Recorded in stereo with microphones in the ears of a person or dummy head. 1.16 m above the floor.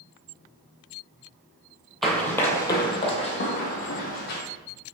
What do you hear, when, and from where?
2.0 s running footsteps: centre (ahead or behind), 1.2 m; by 4.4 s 50° left (ahead or behind), 2 m